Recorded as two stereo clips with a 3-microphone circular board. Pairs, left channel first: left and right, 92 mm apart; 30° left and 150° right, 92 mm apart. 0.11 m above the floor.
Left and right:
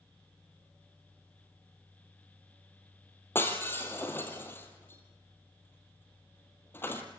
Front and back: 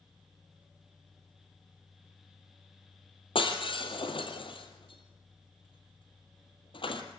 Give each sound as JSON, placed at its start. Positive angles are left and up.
{"t": 3.4, "sound": "breaking glass", "azimuth_deg": 25, "distance_m": 2.0}